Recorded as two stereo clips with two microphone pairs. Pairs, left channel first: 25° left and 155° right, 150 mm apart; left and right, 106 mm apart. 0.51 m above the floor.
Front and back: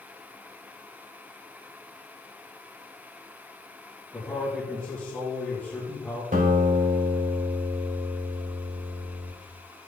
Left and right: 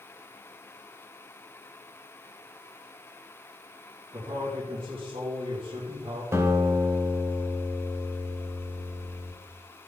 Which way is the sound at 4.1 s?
55° right.